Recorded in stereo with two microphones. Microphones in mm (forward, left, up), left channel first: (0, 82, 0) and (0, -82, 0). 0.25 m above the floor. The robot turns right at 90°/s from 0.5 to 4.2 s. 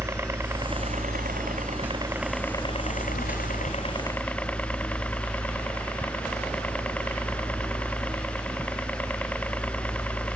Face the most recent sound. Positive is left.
turn(degrees=170)